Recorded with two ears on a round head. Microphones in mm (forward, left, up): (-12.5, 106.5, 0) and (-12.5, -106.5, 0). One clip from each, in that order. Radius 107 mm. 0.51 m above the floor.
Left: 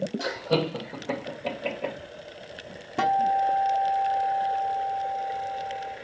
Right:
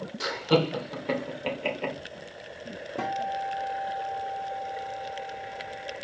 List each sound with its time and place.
0.2 s laughter: 45° right (ahead or behind), 1.8 m; by 1.9 s 60° right (ahead or behind), 1.9 m
3.0 s a guitar: 30° left (ahead or behind), 0.6 m